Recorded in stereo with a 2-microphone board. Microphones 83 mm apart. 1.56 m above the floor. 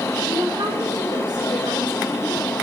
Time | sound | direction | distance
0.3 | a woman speaking | 60° right (ahead or behind) | 4.5 m